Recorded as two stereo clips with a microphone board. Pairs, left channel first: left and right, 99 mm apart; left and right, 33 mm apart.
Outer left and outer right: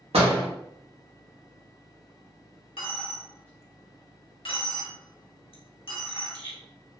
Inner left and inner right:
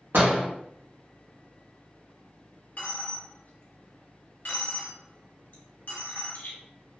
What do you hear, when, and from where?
0.1 s a door slam: 85° right, 0.9 m
2.8 s a dropped coin: 65° left (ahead or behind), 1.0 m